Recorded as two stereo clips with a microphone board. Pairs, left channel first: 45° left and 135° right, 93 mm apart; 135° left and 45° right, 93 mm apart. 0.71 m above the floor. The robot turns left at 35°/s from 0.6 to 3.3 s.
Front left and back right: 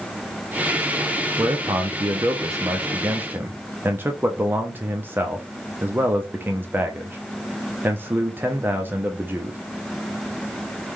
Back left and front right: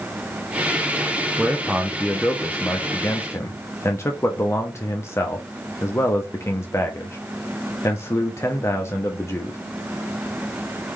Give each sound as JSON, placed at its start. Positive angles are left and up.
{"t": 1.4, "sound": "a man speaking", "azimuth_deg": -120, "distance_m": 0.6}